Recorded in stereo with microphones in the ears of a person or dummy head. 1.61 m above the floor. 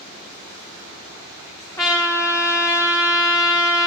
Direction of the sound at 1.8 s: 15° left (ahead or behind).